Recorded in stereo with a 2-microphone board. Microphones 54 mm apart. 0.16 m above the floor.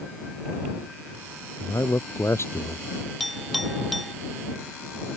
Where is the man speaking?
70° left (ahead or behind); by 2.9 s 50° left (ahead or behind).